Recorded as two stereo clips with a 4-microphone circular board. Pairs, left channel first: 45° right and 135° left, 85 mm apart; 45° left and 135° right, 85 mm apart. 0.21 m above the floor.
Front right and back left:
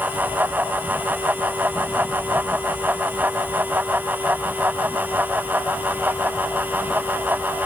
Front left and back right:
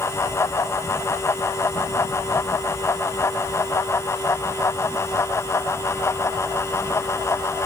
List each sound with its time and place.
Only background noise.